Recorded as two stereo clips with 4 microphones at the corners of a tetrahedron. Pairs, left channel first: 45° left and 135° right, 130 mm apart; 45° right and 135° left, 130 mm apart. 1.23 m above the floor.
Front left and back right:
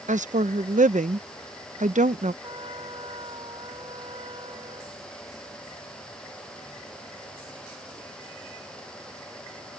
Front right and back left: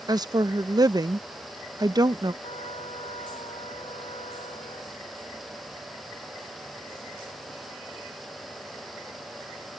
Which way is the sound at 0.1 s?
165° right.